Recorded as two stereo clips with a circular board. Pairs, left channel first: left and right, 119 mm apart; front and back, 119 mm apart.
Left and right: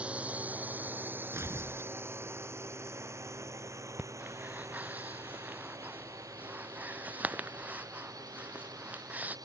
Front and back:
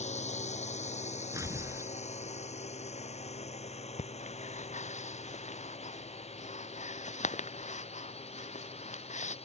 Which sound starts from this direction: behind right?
Tearing paper, at 1.3 s.